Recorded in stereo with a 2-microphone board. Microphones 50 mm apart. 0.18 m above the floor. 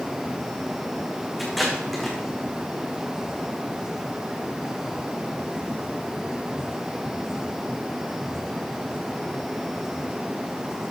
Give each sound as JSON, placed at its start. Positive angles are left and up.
{"t": 1.4, "sound": "tape being pulled", "side_deg": 0, "distance_m": 3.0}